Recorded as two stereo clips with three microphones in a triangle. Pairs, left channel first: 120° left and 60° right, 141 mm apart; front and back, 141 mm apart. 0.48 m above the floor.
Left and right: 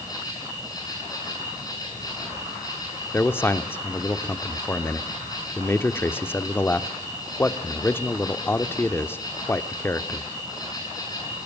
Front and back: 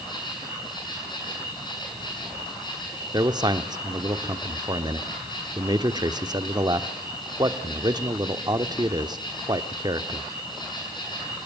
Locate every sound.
0.0 s an insect: 60° left, 6.5 m
3.1 s a man speaking: 175° left, 0.8 m